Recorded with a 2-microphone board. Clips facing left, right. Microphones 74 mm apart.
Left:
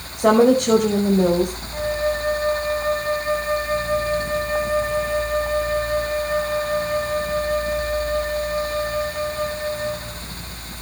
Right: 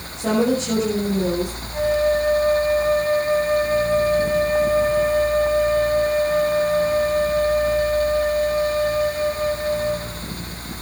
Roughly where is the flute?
Centre.